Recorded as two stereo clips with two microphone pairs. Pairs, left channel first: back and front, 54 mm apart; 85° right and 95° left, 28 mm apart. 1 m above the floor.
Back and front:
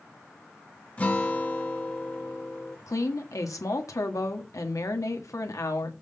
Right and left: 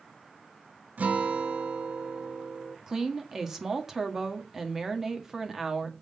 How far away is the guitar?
About 1.3 m.